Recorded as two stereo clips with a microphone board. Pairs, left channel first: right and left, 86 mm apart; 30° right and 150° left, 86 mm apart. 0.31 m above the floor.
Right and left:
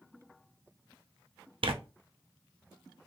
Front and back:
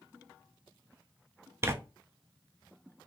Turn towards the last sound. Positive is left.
turn(degrees=90)